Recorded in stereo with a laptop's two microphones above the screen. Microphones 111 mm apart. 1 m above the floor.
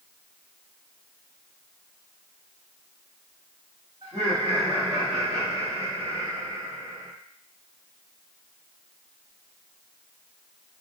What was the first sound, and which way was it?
Laughter, 55° right (ahead or behind).